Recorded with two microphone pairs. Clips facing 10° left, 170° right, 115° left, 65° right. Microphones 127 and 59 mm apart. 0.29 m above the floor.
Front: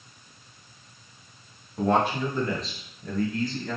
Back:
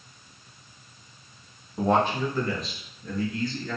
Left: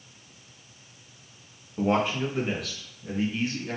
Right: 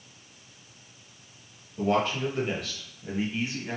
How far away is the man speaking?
About 1.0 m.